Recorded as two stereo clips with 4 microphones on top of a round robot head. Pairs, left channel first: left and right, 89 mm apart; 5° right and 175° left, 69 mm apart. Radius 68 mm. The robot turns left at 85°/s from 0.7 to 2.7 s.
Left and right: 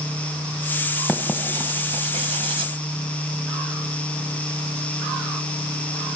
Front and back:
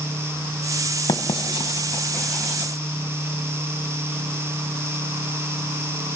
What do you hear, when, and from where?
1.1 s writing: 10° left, 1.4 m; by 2.7 s 125° right, 1.4 m